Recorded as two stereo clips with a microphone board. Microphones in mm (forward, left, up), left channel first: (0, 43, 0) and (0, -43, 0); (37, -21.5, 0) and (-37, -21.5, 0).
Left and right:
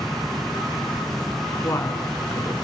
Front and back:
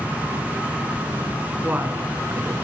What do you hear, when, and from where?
1.6 s a woman speaking: 125° left, 1.6 m